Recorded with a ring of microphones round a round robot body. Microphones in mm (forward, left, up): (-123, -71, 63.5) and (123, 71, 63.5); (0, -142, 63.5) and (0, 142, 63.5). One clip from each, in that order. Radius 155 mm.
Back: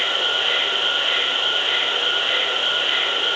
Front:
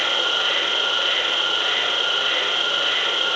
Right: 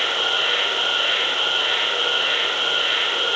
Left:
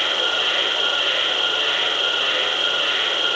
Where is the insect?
10° left, 8 m.